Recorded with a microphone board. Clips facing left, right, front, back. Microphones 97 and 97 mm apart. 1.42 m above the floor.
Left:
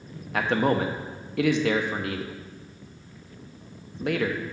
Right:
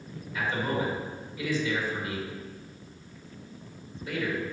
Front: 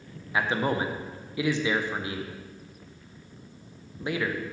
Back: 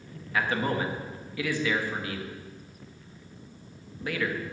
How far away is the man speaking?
About 0.9 m.